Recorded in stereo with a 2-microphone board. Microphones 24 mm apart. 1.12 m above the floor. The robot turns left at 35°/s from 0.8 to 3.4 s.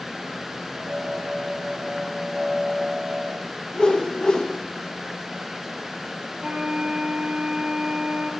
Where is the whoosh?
40° left (ahead or behind), 1.0 m.